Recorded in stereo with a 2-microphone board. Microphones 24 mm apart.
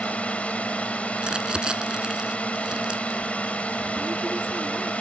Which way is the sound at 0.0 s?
70° left (ahead or behind).